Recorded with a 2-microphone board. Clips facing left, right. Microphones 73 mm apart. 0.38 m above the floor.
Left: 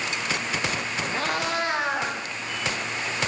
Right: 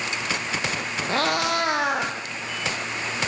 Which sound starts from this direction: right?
A cat meowing, at 1.1 s.